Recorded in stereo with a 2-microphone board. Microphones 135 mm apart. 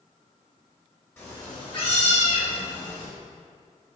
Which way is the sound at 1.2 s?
15° left (ahead or behind).